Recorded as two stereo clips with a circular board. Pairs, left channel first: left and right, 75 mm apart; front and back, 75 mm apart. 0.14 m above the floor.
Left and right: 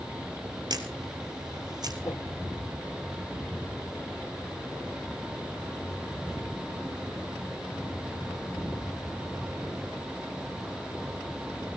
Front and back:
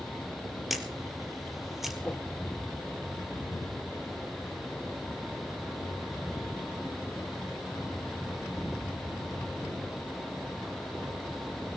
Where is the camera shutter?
90° right, 3 m.